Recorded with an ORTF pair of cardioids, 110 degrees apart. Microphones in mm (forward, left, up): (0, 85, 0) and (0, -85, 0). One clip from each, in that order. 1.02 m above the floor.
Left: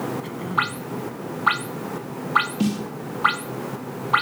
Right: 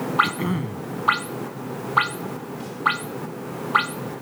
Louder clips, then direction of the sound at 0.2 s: Left 2 dB; 50° right.